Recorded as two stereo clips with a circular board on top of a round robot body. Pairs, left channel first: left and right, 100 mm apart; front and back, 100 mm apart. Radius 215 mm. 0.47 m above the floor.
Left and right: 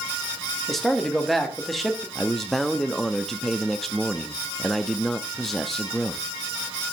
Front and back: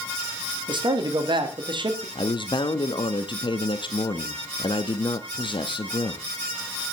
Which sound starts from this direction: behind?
A man speaking, at 0.7 s.